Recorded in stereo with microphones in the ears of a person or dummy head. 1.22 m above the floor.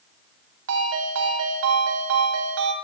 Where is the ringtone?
85° right, 2 m.